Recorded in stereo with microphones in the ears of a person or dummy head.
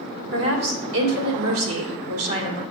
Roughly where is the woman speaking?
Right.